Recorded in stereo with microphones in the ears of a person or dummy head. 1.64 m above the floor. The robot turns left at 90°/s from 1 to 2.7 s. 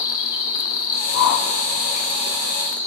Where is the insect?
25° left, 1.0 m; by 2.9 s 130° right, 1.0 m.